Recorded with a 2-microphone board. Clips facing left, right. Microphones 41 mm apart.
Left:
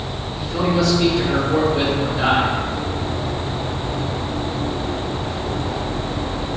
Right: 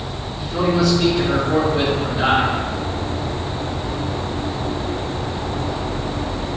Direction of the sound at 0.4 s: 5° right (ahead or behind).